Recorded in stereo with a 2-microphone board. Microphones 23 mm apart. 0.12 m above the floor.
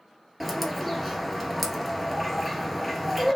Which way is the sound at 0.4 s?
Centre (ahead or behind).